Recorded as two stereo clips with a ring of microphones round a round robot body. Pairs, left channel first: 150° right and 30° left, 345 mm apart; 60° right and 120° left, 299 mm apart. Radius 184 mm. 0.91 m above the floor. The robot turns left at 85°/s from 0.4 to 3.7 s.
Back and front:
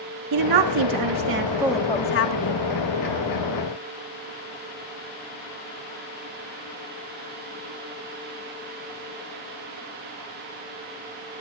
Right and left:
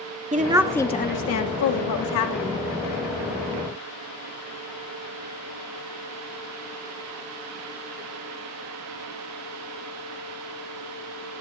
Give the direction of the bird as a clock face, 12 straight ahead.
No bird in this recording.